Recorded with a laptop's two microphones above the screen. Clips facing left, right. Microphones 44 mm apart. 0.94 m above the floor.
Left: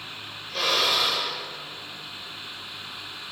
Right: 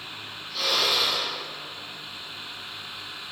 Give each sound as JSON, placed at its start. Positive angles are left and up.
{"t": 0.5, "sound": "a drill", "side_deg": 60, "distance_m": 5.0}